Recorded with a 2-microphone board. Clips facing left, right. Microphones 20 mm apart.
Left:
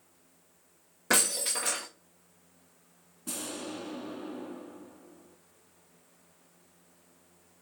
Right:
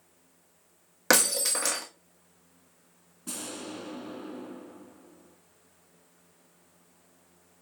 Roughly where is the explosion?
Centre.